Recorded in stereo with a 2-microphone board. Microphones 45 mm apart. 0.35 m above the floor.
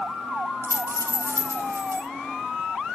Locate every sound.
0.6 s a dropped coin: 65° right (ahead or behind), 2 m